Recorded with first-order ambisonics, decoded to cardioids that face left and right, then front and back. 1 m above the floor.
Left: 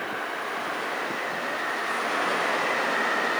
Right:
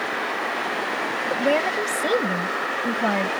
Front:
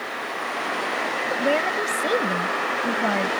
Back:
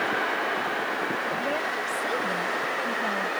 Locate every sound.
1.3 s a woman speaking: 60° right